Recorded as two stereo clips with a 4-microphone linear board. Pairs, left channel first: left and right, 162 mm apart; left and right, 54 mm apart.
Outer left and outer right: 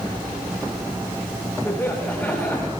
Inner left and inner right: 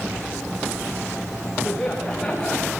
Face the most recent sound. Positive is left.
turn(degrees=10)  # may be behind; listen again after turning